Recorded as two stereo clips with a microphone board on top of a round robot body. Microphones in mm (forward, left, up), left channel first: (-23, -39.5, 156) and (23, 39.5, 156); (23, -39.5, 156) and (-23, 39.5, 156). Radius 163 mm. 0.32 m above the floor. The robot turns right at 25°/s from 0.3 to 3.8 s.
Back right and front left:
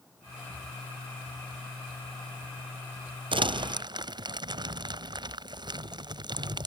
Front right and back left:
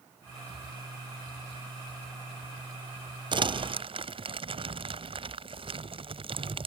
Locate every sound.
3.3 s crumpling: 85° left; by 6.7 s 100° left